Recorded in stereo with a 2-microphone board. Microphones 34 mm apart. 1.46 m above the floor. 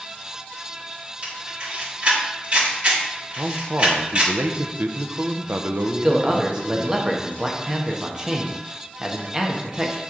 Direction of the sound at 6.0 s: 15° right (ahead or behind).